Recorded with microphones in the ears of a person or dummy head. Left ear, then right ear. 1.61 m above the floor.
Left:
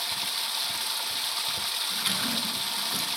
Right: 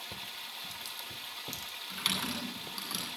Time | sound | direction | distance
0.0 | running water | 50° left (ahead or behind) | 0.9 m
1.9 | typing on a keyboard | 10° right (ahead or behind) | 9 m